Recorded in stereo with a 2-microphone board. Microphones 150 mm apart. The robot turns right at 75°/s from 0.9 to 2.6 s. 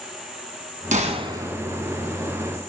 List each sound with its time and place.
0.9 s a gunshot: 60° right, 1.7 m; by 1.6 s 10° right, 1.7 m